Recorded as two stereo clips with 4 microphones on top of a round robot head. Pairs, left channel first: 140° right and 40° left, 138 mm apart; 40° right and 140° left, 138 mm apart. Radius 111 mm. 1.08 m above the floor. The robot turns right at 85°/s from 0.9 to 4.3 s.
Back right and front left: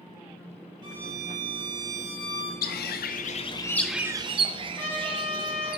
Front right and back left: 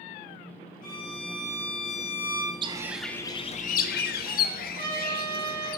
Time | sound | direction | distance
0.8 | a violin | 20° right | 3 m
2.6 | a bird | 160° right | 0.6 m
4.8 | a trumpet | 145° left | 4 m